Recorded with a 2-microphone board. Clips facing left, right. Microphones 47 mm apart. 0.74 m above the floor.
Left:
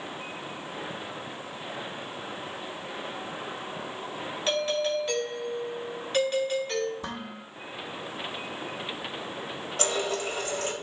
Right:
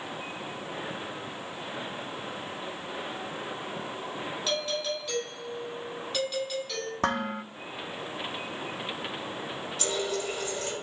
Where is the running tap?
55° left (ahead or behind), 2.5 m.